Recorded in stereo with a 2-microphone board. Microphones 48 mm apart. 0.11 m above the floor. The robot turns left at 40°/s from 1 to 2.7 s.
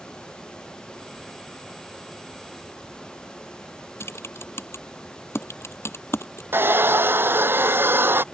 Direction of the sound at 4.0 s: 60° left (ahead or behind).